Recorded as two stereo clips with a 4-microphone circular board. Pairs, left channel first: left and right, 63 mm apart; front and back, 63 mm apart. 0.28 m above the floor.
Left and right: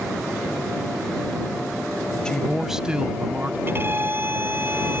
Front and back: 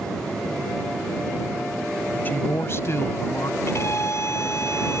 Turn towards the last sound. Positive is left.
turn(degrees=-40)